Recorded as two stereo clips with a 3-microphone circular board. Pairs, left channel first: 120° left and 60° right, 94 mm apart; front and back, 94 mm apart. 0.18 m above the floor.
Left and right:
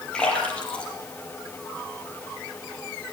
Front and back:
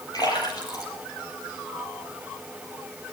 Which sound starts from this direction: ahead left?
A splash, at 0.1 s.